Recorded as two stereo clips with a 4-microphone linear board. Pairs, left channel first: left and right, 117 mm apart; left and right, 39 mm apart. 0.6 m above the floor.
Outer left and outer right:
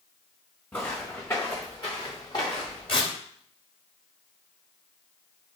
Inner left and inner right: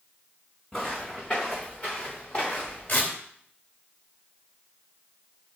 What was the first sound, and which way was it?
Footsteps, 15° left (ahead or behind).